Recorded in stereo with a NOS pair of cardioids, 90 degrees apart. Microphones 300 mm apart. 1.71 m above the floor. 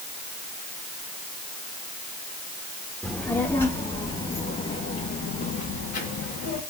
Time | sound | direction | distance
3.0 | a child speaking | 5° left | 1.9 m